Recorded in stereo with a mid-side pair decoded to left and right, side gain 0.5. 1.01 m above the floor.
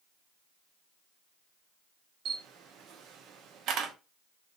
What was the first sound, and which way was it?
A camera shutter, 70° right.